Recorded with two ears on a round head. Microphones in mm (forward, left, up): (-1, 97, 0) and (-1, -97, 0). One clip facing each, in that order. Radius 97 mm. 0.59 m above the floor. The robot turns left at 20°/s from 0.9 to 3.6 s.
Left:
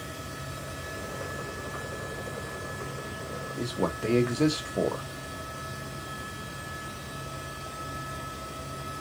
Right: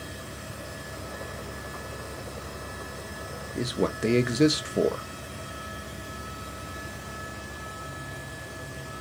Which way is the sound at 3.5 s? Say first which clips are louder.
Right 3 dB; 25° right (ahead or behind).